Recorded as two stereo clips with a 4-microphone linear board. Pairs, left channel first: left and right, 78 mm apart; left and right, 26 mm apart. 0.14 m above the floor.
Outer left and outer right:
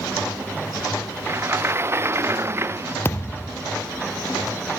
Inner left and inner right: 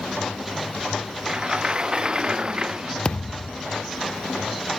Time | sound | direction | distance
1.3 | a sliding door | 35° right (ahead or behind) | ?
3.0 | a thud | 30° left (ahead or behind) | ?